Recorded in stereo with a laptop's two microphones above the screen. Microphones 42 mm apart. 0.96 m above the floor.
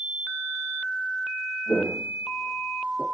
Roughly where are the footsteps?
Left.